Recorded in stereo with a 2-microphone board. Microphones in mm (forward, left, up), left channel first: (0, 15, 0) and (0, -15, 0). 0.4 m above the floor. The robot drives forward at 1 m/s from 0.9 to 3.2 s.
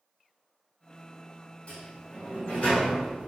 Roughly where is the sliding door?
Left.